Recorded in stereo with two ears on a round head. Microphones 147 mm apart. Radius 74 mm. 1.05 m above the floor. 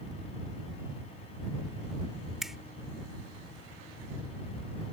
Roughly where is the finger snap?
Centre.